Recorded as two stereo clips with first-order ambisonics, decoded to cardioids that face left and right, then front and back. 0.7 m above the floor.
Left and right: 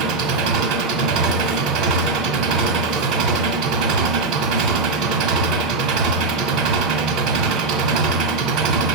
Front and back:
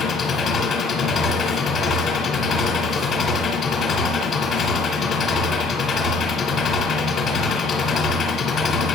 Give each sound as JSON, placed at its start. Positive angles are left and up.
{"t": 0.0, "sound": "an engine running", "azimuth_deg": -70, "distance_m": 1.6}